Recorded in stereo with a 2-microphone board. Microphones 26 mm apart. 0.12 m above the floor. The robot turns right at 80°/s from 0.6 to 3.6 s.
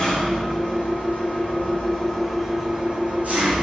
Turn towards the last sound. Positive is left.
turn(degrees=-80)